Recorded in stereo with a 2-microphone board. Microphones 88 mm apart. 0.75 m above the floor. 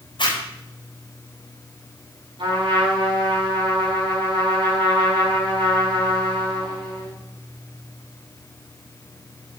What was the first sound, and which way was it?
A zipper, 55° left (ahead or behind).